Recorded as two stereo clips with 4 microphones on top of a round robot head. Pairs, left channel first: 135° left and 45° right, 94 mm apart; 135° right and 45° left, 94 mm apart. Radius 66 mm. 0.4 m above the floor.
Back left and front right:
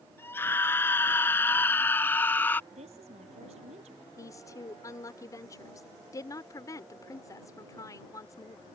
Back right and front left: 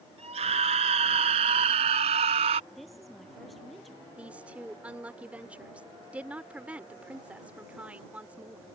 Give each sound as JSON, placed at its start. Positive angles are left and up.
{"t": 0.2, "sound": "a scream", "azimuth_deg": 65}
{"t": 2.7, "sound": "a woman speaking", "azimuth_deg": -45}
{"t": 4.2, "sound": "a woman speaking", "azimuth_deg": 115}